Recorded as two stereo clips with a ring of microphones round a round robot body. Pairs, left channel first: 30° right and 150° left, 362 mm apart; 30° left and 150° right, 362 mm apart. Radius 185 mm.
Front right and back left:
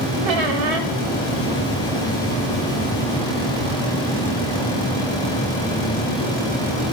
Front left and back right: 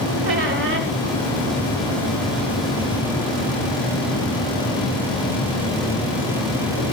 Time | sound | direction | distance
0.2 | a squeak | 150° left | 1.6 m